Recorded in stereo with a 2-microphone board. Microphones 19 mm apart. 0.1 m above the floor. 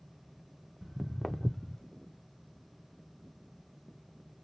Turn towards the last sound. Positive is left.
turn(degrees=45)  # may be behind; listen again after turning